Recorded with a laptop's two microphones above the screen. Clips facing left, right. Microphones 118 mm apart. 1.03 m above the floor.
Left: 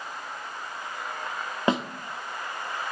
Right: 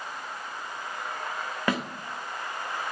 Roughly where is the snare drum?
Left.